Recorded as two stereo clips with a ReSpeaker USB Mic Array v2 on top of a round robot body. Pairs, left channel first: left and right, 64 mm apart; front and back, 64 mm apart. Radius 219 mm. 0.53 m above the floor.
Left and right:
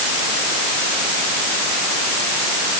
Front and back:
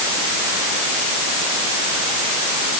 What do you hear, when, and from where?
Only background noise.